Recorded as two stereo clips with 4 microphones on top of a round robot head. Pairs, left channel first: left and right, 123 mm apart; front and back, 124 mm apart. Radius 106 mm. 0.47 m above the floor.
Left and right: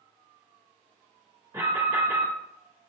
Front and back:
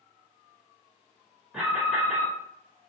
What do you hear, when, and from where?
1.5 s an alarm: 105° right, 1.9 m